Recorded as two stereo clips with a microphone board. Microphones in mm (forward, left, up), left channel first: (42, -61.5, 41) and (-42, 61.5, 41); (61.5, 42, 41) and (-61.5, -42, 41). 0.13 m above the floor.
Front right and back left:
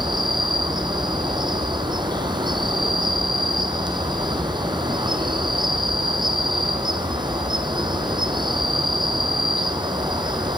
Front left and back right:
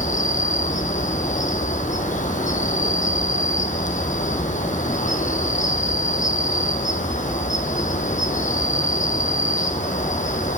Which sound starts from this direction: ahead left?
An insect, at 0.0 s.